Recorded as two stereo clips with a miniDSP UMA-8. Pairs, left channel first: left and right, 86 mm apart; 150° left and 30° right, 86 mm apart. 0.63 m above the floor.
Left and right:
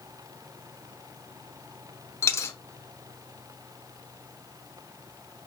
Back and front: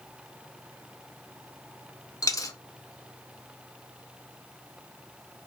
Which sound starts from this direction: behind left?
A dropped coin, at 2.2 s.